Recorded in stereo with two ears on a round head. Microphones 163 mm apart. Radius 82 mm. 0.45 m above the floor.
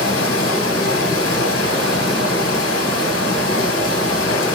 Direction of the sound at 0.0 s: 80° left.